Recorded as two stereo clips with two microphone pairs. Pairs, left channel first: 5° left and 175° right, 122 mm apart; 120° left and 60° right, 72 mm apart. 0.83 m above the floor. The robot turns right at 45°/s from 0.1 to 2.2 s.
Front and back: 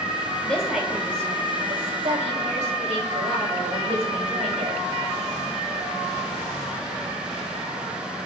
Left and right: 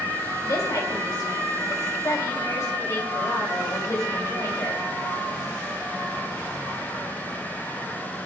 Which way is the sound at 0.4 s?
85° left.